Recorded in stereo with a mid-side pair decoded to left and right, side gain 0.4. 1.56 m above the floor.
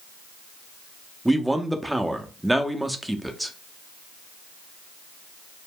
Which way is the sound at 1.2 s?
5° right.